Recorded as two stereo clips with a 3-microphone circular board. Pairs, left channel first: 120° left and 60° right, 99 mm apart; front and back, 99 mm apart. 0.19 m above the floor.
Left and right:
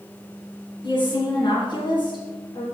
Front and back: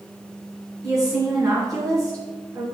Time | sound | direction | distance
0.8 | a woman speaking | 135° left | 2.5 m